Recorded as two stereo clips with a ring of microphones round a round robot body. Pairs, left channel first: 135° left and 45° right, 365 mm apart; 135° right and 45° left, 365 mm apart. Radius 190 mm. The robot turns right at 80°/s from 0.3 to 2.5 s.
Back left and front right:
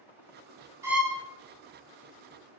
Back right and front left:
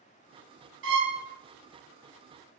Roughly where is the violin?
Ahead left.